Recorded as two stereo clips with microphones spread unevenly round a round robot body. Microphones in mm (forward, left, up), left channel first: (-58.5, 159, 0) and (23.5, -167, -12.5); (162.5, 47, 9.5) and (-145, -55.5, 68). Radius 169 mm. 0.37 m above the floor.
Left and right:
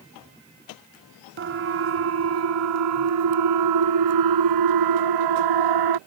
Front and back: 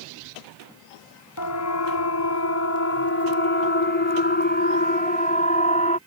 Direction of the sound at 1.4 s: 20° right.